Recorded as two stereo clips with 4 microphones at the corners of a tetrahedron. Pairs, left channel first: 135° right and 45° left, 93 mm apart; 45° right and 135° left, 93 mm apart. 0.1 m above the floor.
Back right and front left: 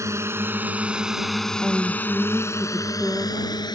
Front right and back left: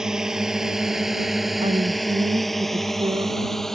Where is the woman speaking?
130° left.